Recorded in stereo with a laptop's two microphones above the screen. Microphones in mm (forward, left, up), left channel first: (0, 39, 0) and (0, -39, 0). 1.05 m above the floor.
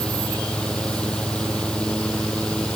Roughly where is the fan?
Centre.